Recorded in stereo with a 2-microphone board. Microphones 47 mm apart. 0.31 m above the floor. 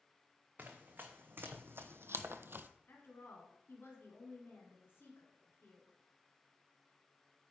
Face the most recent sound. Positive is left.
turn(degrees=55)  # may be behind; listen again after turning